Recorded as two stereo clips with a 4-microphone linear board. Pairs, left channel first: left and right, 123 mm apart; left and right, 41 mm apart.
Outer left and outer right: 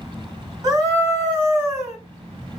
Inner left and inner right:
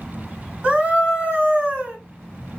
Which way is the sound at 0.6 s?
30° right (ahead or behind).